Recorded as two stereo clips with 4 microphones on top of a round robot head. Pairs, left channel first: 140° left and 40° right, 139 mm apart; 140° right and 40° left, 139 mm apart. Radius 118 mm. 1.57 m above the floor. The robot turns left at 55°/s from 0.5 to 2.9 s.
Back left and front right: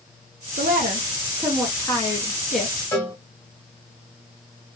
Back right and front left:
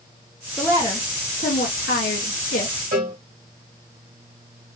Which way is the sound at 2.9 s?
70° left.